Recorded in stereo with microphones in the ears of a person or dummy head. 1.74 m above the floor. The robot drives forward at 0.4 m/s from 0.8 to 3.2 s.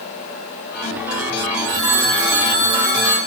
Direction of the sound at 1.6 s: 65° right (ahead or behind).